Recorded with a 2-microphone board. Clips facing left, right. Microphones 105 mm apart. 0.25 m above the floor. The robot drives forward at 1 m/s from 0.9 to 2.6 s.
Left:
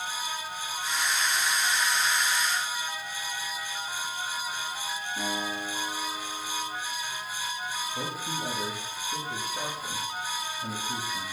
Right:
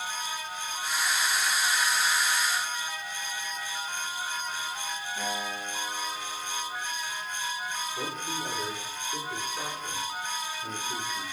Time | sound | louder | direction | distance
5.2 | a guitar | left 2 dB | 25° left (ahead or behind) | 5 m
8.0 | a man speaking | even | 40° left (ahead or behind) | 5.5 m